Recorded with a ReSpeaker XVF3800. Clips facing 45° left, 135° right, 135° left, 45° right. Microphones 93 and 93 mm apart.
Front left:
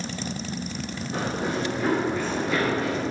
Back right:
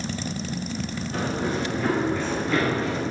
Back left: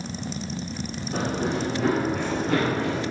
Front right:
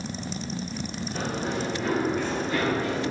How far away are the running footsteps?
About 4 m.